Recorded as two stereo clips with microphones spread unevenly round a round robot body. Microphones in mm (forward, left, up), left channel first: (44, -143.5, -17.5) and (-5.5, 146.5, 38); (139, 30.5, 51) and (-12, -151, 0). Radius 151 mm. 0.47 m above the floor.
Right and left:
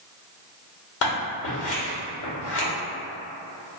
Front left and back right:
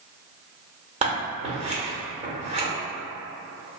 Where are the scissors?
85° right, 1.2 m.